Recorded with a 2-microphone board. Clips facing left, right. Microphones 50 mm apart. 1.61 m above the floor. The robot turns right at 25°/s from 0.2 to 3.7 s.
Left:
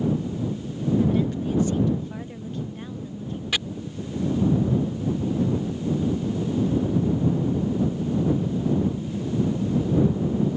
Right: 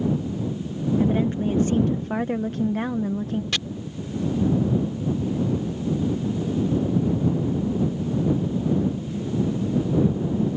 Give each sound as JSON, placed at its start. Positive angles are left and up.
{"t": 1.0, "sound": "a woman speaking", "azimuth_deg": -155}
{"t": 3.5, "sound": "chopping", "side_deg": 5}